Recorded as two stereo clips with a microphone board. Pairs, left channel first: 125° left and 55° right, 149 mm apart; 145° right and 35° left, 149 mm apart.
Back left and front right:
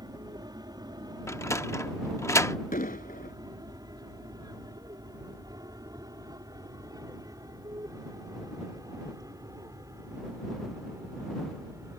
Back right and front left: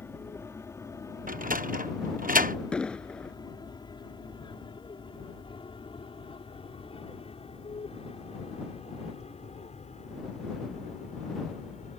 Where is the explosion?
130° left.